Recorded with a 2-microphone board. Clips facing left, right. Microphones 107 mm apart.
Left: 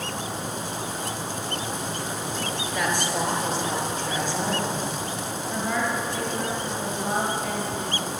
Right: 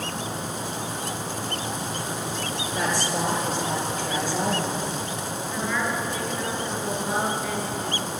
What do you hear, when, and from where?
2.7 s a woman speaking: 30° right (ahead or behind), 4 m; by 4.9 s 50° right (ahead or behind), 6 m
5.5 s a woman speaking: 35° left (ahead or behind), 4.5 m